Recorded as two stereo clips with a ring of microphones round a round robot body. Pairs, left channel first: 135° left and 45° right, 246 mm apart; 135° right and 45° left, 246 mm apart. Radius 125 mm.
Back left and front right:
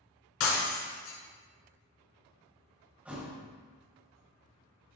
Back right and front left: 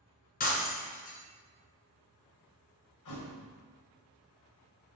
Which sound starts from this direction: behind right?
A thud, at 3.0 s.